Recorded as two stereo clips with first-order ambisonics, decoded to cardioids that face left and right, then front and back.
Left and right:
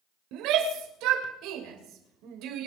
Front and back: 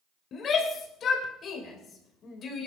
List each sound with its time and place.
0.3 s a shout: 60° right, 3 m